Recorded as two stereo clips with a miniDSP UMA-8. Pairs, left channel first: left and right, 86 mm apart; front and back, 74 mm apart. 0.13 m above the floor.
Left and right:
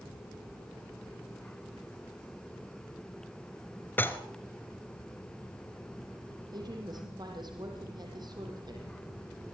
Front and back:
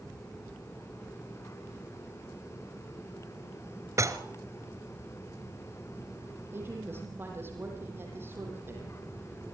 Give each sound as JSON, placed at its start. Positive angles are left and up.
{"t": 4.0, "sound": "dishes clattering", "azimuth_deg": 150, "distance_m": 1.4}
{"t": 6.5, "sound": "a woman speaking", "azimuth_deg": -120, "distance_m": 6.5}